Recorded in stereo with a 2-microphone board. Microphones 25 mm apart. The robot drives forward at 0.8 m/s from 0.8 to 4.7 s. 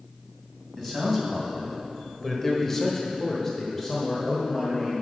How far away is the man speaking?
About 2 m.